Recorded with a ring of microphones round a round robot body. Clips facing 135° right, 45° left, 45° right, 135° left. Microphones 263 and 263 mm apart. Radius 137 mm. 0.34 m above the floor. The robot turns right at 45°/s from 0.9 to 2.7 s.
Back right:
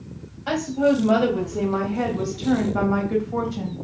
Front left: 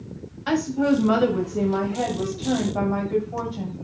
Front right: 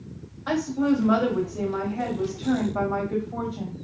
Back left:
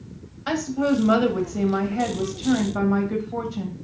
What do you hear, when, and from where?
0.5 s a woman speaking: 95° left, 1.6 m; by 3.8 s straight behind, 1.6 m